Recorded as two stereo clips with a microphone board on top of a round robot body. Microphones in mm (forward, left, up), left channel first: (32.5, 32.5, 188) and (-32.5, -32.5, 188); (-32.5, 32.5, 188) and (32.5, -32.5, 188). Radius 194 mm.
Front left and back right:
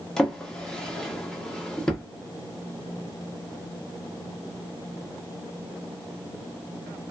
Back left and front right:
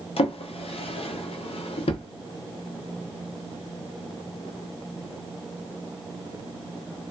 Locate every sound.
0.2 s a drawer: 130° left, 0.8 m